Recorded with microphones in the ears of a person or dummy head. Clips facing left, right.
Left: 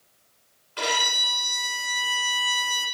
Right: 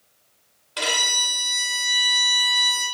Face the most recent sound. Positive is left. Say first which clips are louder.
# left 1 dB
turn(degrees=-55)  # may be behind; listen again after turning